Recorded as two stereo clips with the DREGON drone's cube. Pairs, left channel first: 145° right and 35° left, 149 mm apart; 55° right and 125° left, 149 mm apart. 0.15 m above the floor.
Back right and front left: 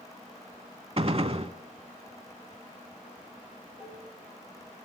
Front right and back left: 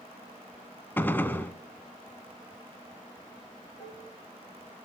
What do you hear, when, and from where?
1.0 s a gunshot: 15° left, 0.8 m
3.8 s dishes clattering: 55° right, 9 m